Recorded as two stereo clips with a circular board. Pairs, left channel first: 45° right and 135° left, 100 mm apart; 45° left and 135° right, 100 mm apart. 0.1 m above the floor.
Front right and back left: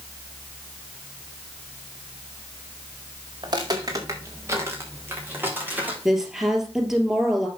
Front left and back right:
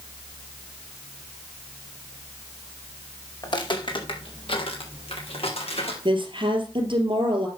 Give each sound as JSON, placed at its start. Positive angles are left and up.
{"t": 3.4, "sound": "footsteps", "azimuth_deg": 90, "distance_m": 3.0}
{"t": 6.0, "sound": "a woman speaking", "azimuth_deg": -140, "distance_m": 2.5}